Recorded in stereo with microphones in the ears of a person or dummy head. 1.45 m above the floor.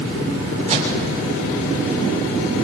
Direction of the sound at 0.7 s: 40° right (ahead or behind).